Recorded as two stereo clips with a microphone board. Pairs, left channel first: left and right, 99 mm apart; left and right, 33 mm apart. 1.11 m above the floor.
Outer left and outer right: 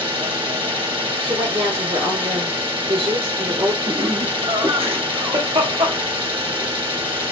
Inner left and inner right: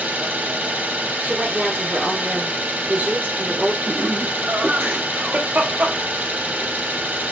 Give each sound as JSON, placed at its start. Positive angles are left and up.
{"t": 0.0, "sound": "an engine running", "side_deg": -70, "distance_m": 2.0}
{"t": 1.2, "sound": "a woman speaking", "side_deg": -85, "distance_m": 2.0}
{"t": 3.9, "sound": "laughter", "side_deg": -75, "distance_m": 1.2}